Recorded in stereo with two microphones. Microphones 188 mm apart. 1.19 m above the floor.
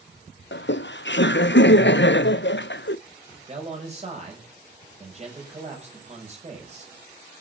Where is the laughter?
75° left (ahead or behind), 0.5 m.